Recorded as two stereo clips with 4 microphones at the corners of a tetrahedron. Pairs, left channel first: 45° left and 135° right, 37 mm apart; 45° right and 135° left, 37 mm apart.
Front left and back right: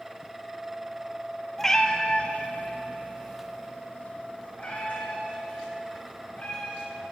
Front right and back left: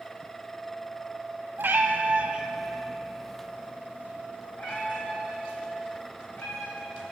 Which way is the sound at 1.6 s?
125° left.